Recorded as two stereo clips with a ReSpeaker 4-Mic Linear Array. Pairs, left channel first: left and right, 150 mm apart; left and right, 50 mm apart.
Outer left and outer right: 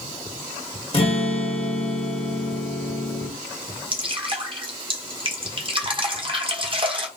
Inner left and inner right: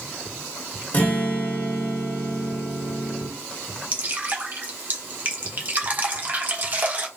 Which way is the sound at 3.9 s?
35° right (ahead or behind).